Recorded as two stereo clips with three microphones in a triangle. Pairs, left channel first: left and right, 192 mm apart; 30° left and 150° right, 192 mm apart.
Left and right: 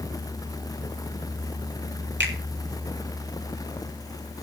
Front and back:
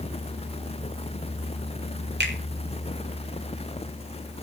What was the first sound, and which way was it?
A finger snap, 115° right.